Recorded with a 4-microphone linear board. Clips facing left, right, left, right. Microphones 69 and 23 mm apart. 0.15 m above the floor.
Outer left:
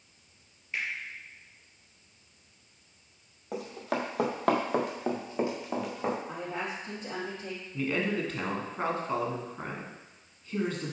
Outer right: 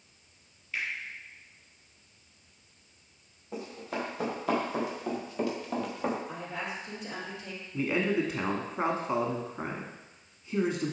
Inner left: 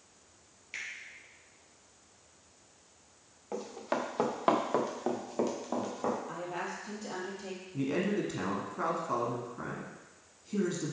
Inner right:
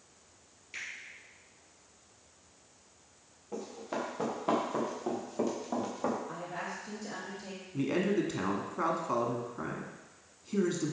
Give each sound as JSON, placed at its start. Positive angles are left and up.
{"t": 0.7, "sound": "a finger snap", "side_deg": 20, "distance_m": 3.0}
{"t": 3.5, "sound": "running footsteps", "side_deg": 85, "distance_m": 2.5}
{"t": 6.3, "sound": "a woman speaking", "side_deg": 35, "distance_m": 3.0}
{"t": 7.7, "sound": "a man speaking", "side_deg": -15, "distance_m": 1.0}